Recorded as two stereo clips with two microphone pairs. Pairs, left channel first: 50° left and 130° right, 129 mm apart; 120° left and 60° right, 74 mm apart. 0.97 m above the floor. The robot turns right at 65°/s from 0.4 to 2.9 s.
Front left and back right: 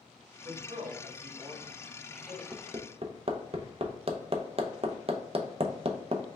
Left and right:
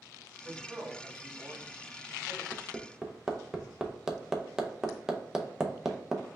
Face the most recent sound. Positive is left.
turn(degrees=-140)